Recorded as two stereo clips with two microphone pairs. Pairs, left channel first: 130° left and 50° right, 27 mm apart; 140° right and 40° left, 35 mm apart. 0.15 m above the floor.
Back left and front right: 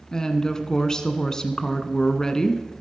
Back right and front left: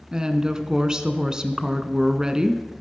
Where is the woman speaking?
90° left, 1.3 m.